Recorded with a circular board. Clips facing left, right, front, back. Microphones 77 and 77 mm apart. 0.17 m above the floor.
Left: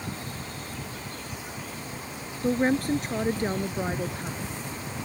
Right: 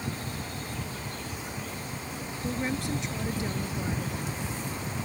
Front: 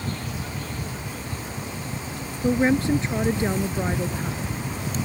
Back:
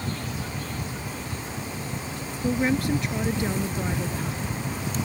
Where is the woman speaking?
55° left.